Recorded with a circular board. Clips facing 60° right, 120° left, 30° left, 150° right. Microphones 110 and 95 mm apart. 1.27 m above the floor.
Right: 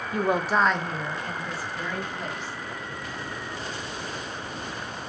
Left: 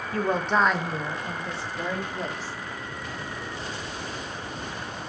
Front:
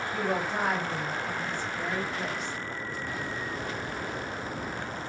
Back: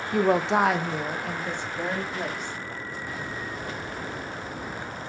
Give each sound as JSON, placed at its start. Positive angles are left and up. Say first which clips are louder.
{"t": 0.1, "sound": "a woman speaking", "louder": "even, back 10 dB", "azimuth_deg": -130, "distance_m": 1.2}